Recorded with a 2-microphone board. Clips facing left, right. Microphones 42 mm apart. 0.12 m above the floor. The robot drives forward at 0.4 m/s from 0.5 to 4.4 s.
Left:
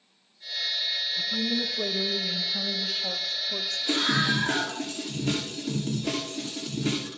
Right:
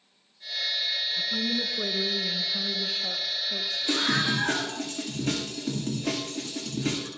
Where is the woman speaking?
20° right (ahead or behind), 1.1 m; by 3.8 s 15° right (ahead or behind), 1.7 m.